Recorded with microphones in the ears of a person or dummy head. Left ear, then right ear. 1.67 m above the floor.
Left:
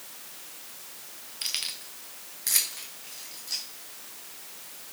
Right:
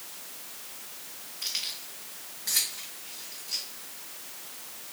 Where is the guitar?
I don't hear a guitar.